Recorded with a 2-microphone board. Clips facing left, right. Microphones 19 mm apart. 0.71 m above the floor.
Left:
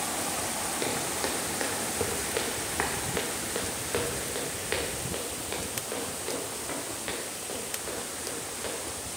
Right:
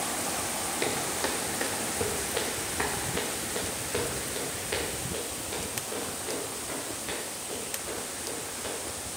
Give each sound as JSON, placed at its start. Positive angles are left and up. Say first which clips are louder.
{"t": 0.8, "sound": "footsteps", "louder": "right 2 dB", "side_deg": -10, "distance_m": 1.4}